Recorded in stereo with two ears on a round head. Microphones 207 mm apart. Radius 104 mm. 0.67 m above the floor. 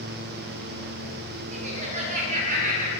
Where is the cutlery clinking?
I don't hear cutlery clinking.